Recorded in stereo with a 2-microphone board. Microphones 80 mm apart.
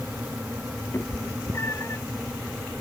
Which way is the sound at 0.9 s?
35° left (ahead or behind).